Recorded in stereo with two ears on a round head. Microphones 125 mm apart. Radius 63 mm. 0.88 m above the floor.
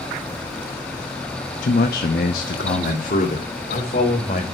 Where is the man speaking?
60° left (ahead or behind), 0.7 m.